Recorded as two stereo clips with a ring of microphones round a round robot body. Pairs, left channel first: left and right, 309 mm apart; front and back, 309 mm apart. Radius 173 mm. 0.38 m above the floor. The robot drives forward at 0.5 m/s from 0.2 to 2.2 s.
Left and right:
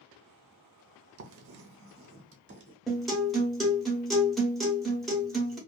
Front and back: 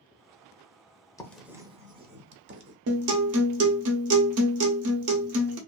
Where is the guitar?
Straight behind, 0.8 m.